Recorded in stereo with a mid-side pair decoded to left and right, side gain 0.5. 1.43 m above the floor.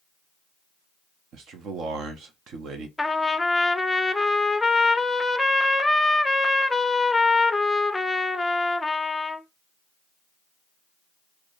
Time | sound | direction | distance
1.3 | a man speaking | 65° right | 1.1 m
3.0 | a trumpet | 10° left | 0.5 m